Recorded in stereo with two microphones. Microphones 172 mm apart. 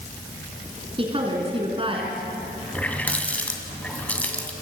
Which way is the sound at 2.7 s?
10° left (ahead or behind).